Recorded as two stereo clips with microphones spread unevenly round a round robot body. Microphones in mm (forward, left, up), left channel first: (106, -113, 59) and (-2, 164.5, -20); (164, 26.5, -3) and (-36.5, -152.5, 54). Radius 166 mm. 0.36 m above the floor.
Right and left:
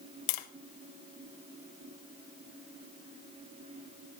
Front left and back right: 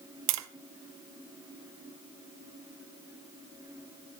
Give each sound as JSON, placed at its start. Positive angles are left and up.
{"t": 0.3, "sound": "tapping", "azimuth_deg": -105, "distance_m": 0.6}